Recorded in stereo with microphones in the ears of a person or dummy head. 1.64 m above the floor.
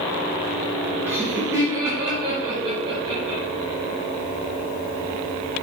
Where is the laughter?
10° right (ahead or behind), 2 m; by 3.4 s 30° right (ahead or behind), 3 m.